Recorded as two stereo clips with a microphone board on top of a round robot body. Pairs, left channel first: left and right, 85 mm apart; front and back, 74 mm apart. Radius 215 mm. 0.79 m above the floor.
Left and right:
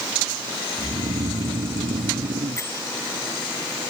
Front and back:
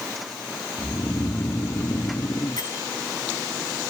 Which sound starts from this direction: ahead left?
A bell, at 2.6 s.